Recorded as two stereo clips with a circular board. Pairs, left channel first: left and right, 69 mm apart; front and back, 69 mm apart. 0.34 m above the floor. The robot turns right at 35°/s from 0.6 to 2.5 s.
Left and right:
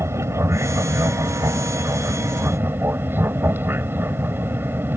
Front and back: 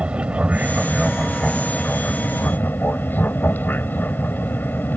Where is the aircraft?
115° right; by 5.0 s 50° right.